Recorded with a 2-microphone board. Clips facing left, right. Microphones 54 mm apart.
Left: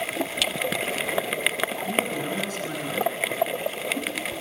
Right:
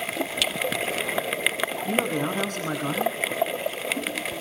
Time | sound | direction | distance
1.9 | a man speaking | 50° right (ahead or behind) | 8.5 m